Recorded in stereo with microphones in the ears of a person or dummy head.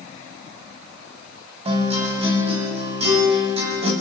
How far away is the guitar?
About 5.5 m.